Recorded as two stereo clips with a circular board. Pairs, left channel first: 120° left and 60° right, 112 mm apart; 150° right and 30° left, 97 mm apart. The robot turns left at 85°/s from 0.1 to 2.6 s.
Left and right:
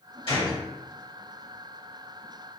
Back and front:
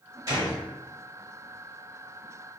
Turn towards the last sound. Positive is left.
turn(degrees=-120)